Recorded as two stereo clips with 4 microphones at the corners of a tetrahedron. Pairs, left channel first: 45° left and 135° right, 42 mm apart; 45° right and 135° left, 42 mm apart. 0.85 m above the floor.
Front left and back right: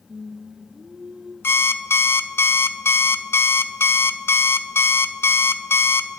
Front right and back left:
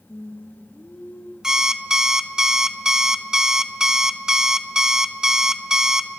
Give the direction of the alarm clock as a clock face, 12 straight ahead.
10 o'clock.